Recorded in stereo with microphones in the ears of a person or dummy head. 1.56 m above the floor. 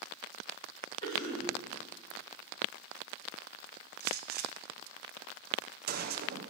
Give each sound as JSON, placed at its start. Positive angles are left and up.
{"t": 1.0, "sound": "a cough", "side_deg": 20, "distance_m": 3.5}
{"t": 4.0, "sound": "a gunshot", "side_deg": -50, "distance_m": 0.8}